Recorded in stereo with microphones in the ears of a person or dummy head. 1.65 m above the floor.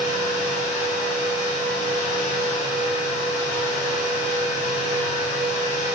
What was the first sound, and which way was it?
A fan, 45° left (ahead or behind).